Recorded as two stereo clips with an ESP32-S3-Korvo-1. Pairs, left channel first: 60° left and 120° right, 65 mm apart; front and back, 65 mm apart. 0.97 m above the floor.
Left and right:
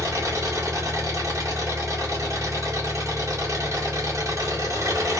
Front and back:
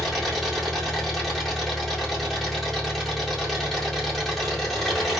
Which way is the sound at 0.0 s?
90° right.